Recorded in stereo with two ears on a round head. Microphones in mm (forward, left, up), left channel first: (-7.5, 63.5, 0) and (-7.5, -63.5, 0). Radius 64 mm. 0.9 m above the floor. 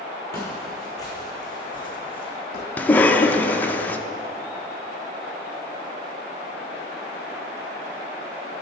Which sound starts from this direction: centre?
A cough, at 2.8 s.